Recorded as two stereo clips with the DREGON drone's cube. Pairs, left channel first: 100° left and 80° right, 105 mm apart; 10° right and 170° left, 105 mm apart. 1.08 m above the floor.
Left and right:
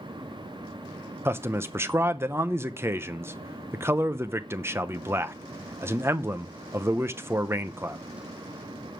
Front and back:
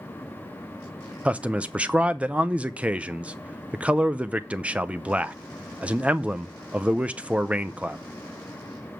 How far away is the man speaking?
About 0.6 m.